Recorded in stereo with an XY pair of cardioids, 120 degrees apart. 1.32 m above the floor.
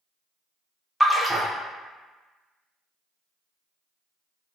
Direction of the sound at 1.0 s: Straight ahead.